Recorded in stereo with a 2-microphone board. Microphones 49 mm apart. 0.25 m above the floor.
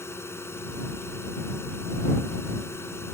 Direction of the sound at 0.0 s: 60° left (ahead or behind).